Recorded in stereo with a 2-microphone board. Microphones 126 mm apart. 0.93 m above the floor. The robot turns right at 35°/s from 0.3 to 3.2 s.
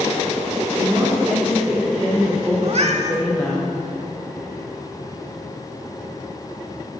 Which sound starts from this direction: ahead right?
A woman speaking, at 0.7 s.